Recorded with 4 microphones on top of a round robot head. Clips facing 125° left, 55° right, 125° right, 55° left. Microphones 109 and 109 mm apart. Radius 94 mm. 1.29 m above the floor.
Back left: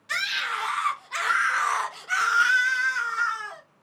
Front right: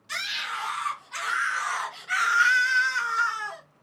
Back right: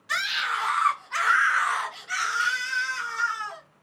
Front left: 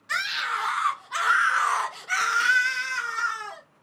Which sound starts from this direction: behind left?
A scream, at 0.1 s.